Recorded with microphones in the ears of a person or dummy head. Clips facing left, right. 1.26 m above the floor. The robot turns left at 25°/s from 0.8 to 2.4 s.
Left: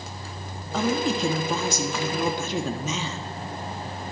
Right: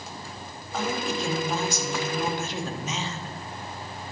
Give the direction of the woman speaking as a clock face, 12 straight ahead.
8 o'clock.